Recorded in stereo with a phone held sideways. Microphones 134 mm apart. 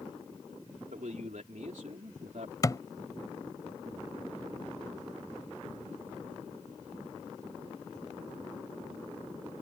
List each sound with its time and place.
0.9 s a man speaking: 75° right (ahead or behind); by 2.5 s 70° right (ahead or behind)
2.6 s a thud: 30° left (ahead or behind)